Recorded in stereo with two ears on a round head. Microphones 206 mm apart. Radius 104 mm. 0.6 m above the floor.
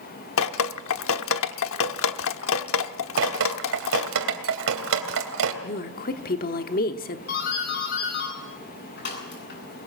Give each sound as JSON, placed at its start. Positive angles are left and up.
{"t": 0.4, "sound": "dripping", "side_deg": 60, "distance_m": 1.0}
{"t": 3.2, "sound": "dripping", "side_deg": -65, "distance_m": 3.0}
{"t": 5.6, "sound": "a woman speaking", "side_deg": 40, "distance_m": 1.2}
{"t": 7.3, "sound": "a doorbell", "side_deg": 50, "distance_m": 9.0}